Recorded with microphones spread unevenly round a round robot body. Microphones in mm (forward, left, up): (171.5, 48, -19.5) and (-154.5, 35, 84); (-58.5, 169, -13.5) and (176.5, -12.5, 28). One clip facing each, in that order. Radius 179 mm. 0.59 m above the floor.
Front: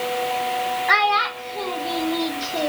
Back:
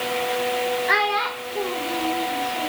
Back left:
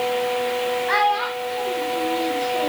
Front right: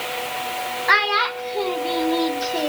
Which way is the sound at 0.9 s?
60° right.